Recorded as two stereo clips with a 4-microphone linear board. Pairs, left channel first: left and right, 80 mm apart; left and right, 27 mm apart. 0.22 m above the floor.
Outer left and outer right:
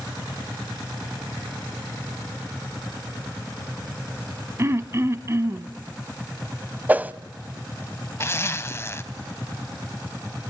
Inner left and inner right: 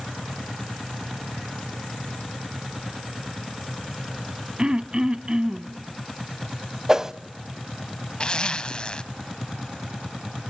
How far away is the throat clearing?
About 0.8 m.